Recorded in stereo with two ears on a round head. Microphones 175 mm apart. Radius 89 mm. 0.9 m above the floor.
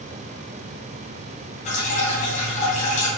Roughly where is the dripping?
Left.